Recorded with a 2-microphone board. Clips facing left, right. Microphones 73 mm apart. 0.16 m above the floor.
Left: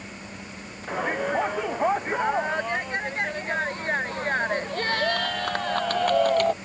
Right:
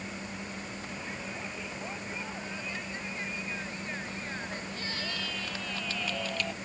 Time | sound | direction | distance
0.9 | a shout | 65° left (ahead or behind) | ?